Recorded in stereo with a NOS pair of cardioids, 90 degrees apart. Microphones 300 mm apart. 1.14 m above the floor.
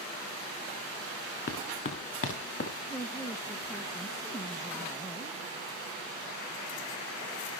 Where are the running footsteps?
40° left, 6 m; by 2.7 s 45° left, 5 m.